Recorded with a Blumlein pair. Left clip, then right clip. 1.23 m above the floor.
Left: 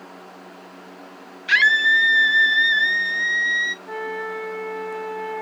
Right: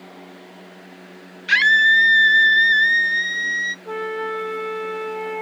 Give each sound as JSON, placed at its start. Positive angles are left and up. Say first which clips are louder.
{"t": 1.5, "sound": "a scream", "louder": "right 2 dB", "azimuth_deg": 0, "distance_m": 0.6}
{"t": 3.9, "sound": "a flute", "louder": "right 3 dB", "azimuth_deg": -65, "distance_m": 3.0}